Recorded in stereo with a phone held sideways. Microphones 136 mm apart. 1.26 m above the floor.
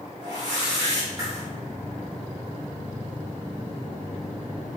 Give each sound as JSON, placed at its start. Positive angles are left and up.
{"t": 0.2, "sound": "a whoosh", "side_deg": -30, "distance_m": 1.9}